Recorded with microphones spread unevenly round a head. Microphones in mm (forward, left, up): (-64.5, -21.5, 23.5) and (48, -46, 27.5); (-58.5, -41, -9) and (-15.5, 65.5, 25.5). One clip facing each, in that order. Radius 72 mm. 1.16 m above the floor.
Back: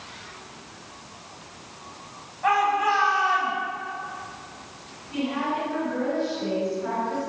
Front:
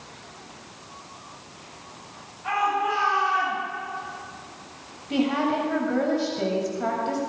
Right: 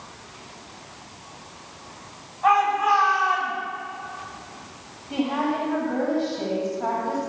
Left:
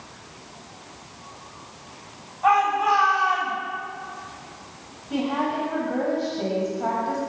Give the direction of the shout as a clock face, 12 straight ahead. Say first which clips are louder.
Back 3 dB, even; 7 o'clock.